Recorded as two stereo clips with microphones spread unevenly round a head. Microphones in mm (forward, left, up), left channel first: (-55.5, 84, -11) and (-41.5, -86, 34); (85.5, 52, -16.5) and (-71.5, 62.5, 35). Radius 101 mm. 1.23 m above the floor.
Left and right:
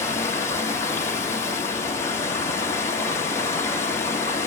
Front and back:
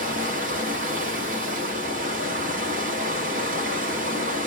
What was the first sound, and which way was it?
Running water, 175° left.